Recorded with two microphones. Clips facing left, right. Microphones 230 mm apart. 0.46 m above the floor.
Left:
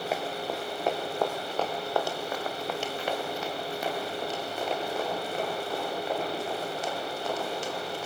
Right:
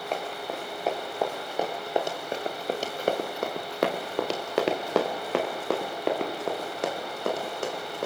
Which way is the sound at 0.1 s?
5° left (ahead or behind).